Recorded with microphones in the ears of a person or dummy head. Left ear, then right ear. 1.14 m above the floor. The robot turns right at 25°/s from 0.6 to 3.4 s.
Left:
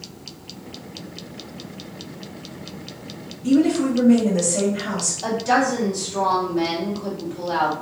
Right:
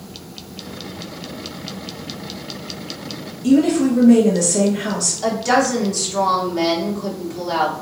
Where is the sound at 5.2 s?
90° right, 2.0 m.